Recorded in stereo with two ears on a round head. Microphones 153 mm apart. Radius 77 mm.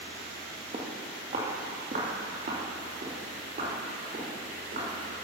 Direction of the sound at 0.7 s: 35° right (ahead or behind).